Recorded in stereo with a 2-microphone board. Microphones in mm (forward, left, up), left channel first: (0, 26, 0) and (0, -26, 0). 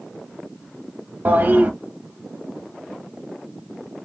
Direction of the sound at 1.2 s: 40° right (ahead or behind).